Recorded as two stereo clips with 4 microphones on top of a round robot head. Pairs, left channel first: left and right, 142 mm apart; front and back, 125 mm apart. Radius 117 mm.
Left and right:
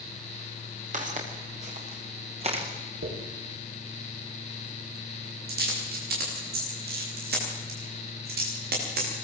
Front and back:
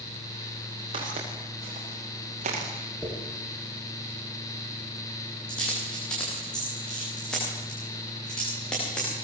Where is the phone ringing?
I don't hear a phone ringing.